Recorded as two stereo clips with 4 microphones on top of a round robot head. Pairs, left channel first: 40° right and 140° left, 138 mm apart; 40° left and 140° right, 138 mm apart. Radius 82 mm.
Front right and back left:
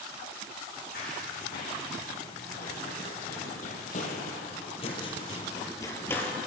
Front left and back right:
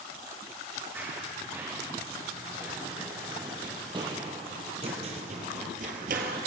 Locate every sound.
0.9 s running footsteps: 65° right, 6 m; by 6.4 s 120° right, 2.5 m